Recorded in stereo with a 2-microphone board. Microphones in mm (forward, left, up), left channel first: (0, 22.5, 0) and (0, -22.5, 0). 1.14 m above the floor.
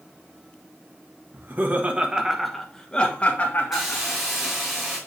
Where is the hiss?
5° right (ahead or behind), 2.5 m.